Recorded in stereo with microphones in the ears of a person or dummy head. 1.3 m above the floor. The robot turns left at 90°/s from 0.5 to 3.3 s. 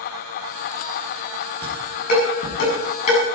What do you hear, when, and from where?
1.6 s dishes clattering: 10° left (ahead or behind), 7.5 m; by 3.2 s 25° left (ahead or behind), 7.5 m